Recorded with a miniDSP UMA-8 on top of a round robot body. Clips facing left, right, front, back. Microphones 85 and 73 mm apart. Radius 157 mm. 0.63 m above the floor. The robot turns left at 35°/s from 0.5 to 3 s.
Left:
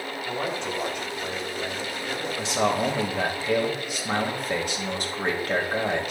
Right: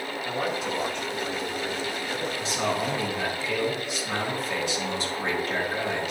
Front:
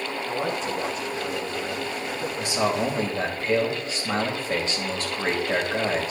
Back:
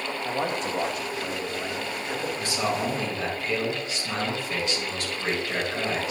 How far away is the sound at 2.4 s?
About 4 m.